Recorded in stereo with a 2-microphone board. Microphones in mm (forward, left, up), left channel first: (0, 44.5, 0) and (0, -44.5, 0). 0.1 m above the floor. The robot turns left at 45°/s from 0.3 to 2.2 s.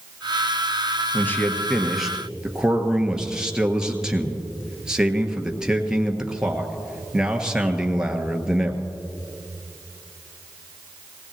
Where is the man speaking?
40° left, 1.5 m; by 8.8 s 10° right, 1.5 m.